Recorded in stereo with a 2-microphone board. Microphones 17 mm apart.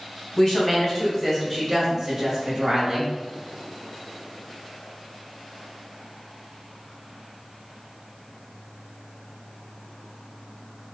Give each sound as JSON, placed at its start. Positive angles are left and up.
{"t": 0.4, "sound": "a woman speaking", "side_deg": 35, "distance_m": 1.7}